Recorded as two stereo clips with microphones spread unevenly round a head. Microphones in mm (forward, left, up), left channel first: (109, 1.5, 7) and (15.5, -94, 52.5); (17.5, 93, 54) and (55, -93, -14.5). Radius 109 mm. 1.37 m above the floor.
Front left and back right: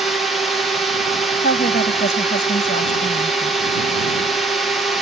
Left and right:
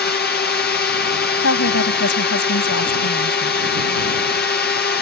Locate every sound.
0.0 s a drone: 100° left
1.4 s a woman speaking: 95° left